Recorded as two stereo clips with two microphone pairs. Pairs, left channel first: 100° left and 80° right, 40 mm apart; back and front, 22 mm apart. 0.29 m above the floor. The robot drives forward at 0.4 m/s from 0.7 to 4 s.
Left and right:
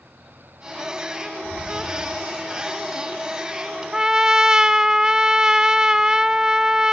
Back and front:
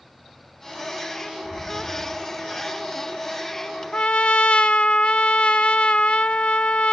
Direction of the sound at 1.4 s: 125° left.